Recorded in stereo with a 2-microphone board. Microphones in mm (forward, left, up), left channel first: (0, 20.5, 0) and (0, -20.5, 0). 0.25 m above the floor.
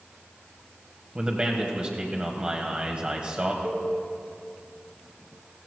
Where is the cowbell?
60° right (ahead or behind), 3 m.